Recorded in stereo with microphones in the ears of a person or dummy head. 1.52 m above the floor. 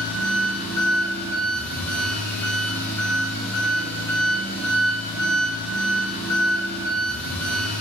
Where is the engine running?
10° left (ahead or behind), 1.6 m.